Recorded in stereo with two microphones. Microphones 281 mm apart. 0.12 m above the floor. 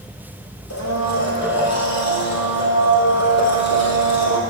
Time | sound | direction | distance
0.7 | a blender | 70° left (ahead or behind) | 1.6 m